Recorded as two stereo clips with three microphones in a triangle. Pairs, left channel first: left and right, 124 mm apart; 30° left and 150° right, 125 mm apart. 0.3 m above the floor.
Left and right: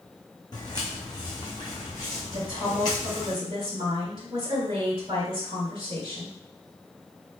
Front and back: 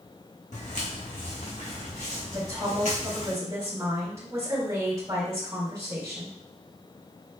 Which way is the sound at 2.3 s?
95° right.